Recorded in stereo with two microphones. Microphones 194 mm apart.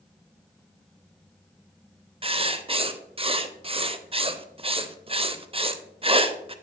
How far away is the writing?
About 0.6 m.